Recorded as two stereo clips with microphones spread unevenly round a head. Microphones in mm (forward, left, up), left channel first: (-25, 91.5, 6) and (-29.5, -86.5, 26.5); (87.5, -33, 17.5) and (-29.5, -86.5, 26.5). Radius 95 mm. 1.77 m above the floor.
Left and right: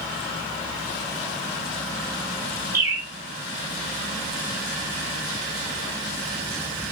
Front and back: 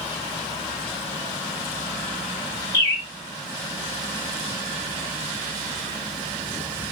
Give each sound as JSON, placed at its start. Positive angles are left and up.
{"t": 2.7, "sound": "a bird", "azimuth_deg": -25, "distance_m": 1.9}